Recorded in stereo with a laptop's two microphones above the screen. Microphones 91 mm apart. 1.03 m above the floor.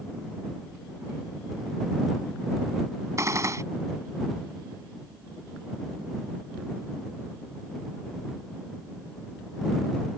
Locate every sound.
3.2 s a gunshot: 40° right (ahead or behind)